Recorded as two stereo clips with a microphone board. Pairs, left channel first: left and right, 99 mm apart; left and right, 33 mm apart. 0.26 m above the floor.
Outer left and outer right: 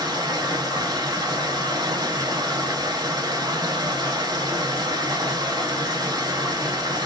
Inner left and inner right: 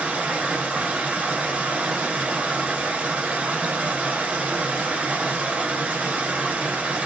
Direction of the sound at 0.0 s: 45° right (ahead or behind).